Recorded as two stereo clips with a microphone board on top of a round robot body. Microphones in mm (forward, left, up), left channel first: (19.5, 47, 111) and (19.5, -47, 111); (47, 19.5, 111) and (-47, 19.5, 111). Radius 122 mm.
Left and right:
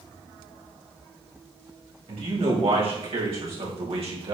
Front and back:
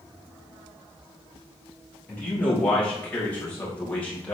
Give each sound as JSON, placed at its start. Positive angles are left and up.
{"t": 2.1, "sound": "a man speaking", "azimuth_deg": -75, "distance_m": 6.0}